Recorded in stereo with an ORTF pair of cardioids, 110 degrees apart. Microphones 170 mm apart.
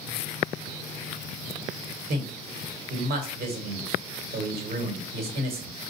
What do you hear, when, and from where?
2.1 s a man speaking: 60° right, 1.4 m